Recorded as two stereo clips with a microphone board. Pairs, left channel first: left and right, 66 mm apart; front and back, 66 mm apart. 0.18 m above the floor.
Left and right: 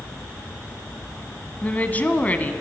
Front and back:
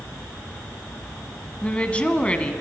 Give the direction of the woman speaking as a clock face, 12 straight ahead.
10 o'clock.